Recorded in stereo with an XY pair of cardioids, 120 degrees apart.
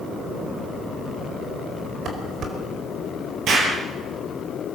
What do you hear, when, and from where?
2.0 s dishes clattering: 55° right, 4.5 m
3.5 s an explosion: 60° right, 8 m